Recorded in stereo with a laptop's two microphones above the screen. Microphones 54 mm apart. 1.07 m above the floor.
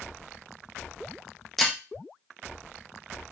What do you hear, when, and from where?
1.6 s breaking glass: centre (ahead or behind), 0.6 m